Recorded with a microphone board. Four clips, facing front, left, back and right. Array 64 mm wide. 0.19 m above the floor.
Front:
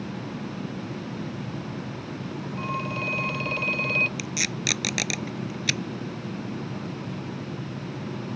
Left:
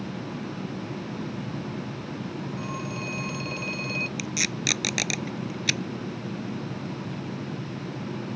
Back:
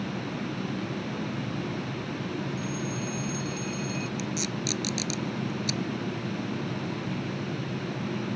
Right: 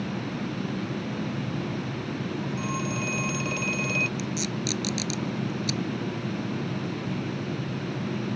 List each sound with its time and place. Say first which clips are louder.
2.6 s a phone ringing: right 3 dB, front 3 dB; 15° right
4.2 s tape being pulled: right 1 dB, even; 45° left